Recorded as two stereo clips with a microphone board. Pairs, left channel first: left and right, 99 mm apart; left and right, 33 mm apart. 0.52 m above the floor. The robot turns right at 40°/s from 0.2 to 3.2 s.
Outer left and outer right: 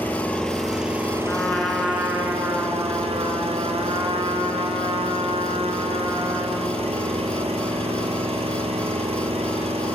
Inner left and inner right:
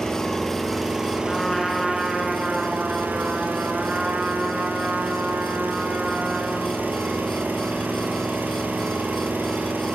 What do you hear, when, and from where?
0.0 s an engine running: 160° left, 4 m; by 9.9 s 80° right, 4 m
1.3 s a trumpet: 160° left, 4.5 m; by 6.7 s 120° right, 4.5 m